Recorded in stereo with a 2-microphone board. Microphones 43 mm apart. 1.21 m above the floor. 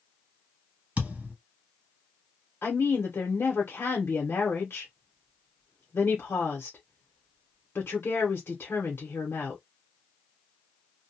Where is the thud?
30° right (ahead or behind), 1.7 m.